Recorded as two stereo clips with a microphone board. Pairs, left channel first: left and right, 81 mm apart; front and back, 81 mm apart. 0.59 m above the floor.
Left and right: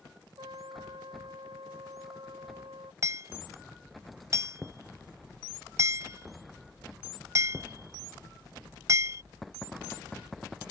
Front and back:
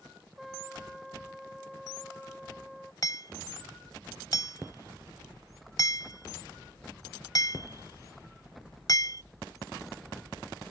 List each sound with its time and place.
0.4 s a trumpet: 90° right
3.0 s hammering: 40° right